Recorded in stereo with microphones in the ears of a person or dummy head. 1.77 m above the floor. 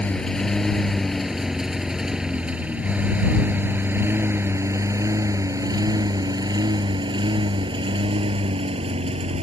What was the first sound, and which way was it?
A lawn mower, 5° left (ahead or behind).